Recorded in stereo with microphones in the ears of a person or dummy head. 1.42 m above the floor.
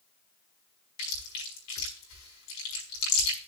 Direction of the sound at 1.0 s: 80° left.